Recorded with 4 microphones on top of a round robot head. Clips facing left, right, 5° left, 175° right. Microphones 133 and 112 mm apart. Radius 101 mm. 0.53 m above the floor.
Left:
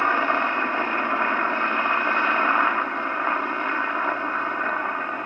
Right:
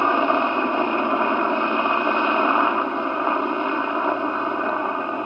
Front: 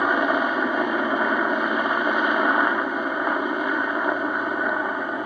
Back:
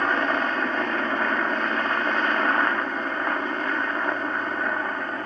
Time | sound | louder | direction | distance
0.0 | a helicopter | right 4 dB, front 3 dB | 55° right | ?